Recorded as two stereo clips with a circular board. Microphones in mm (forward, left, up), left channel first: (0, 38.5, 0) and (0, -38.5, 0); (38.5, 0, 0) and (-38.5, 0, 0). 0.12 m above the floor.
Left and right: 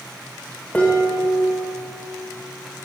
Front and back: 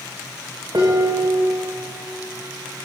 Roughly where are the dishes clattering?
Behind.